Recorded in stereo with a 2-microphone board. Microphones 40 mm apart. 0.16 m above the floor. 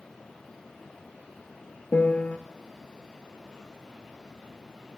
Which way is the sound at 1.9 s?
45° left (ahead or behind).